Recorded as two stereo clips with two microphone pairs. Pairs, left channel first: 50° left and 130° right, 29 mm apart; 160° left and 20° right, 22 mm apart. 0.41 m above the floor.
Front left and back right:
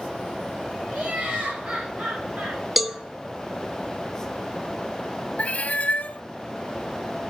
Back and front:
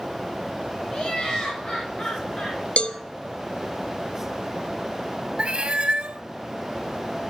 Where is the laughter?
140° right, 6.5 m.